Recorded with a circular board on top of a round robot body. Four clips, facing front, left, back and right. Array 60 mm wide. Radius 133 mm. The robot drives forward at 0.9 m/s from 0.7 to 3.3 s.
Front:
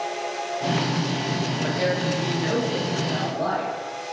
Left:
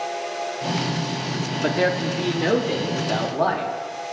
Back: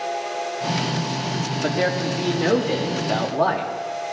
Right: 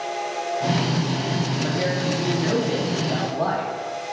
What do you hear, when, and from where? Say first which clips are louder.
1.6 s a man speaking: left 6 dB, back 3 dB; 115° left, 1.7 m; by 3.7 s 145° left, 2.5 m